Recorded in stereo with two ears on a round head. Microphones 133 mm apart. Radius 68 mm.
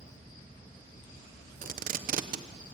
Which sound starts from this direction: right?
Tape being pulled, at 1.6 s.